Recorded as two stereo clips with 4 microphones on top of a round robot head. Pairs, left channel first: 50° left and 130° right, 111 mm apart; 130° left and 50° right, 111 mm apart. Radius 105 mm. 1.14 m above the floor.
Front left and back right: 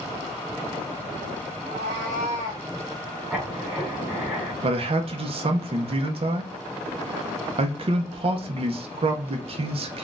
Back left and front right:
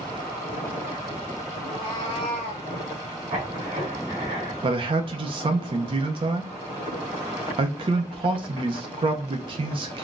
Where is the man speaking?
95° right, 0.5 m.